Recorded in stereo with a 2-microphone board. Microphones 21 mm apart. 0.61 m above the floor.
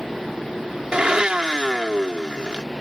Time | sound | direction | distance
0.9 | a blender | 45° right (ahead or behind) | ?